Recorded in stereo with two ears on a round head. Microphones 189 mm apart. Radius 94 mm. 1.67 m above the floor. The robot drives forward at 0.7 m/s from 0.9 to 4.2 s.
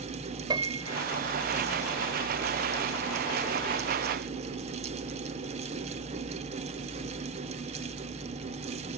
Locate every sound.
0.5 s a piano: 20° right (ahead or behind)